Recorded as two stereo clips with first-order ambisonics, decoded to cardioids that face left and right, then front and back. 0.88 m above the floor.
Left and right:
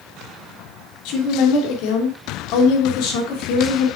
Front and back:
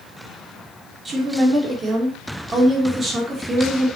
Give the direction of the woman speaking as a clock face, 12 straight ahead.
8 o'clock.